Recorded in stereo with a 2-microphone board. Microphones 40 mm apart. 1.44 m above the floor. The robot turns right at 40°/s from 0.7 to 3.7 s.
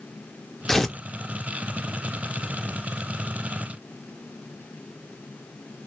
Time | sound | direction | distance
0.7 | tearing paper | 10° left (ahead or behind) | 0.5 m